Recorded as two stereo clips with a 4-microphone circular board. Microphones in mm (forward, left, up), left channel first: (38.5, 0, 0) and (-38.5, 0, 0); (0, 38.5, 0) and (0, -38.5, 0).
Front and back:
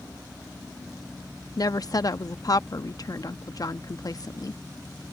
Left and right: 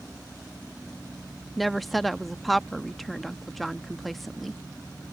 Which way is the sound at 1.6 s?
Straight ahead.